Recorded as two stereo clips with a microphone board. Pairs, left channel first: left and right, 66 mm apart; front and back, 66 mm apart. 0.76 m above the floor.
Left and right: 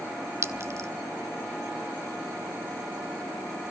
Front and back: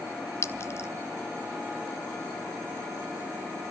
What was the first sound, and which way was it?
A clink, 45° right.